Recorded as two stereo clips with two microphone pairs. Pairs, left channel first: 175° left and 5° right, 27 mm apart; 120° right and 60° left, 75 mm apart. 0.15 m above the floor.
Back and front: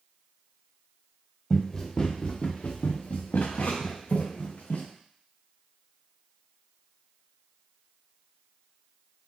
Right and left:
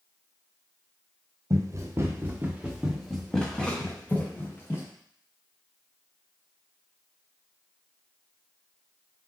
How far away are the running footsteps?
About 1.4 m.